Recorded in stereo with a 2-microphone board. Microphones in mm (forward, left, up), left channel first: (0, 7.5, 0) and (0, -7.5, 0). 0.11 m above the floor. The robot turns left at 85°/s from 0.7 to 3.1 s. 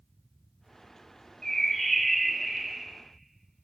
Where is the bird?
70° left, 0.5 m; by 2.8 s 50° right, 0.5 m.